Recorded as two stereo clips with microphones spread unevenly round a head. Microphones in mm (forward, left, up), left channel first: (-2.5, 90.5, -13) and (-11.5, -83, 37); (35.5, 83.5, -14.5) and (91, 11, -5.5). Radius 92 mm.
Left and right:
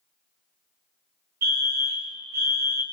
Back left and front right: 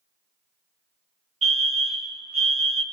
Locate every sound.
1.4 s a fire alarm: 50° right, 3 m